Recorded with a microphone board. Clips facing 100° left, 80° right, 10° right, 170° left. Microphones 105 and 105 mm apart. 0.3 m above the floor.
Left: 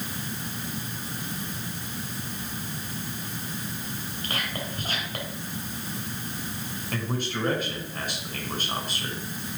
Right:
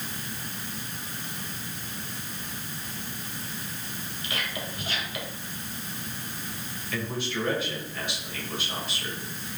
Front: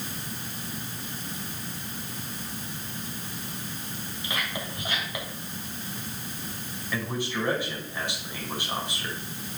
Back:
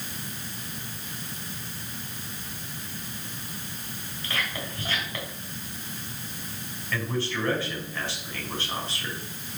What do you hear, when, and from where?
4.2 s whispering: 60° left, 3 m
6.9 s a man speaking: 60° left, 3 m